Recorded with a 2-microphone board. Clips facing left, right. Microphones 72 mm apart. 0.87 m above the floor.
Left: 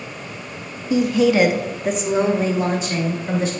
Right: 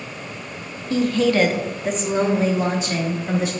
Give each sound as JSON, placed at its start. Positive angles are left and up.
{"t": 0.9, "sound": "a woman speaking", "side_deg": 15, "distance_m": 0.7}